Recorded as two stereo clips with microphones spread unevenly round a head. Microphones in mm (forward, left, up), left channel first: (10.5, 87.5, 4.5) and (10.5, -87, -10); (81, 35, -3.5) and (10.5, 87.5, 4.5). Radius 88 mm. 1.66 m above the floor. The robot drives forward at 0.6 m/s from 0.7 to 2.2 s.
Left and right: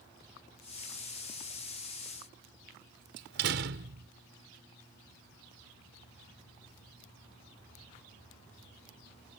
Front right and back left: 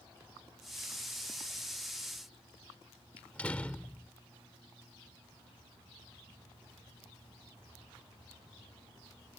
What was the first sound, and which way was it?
A door slam, 120° right.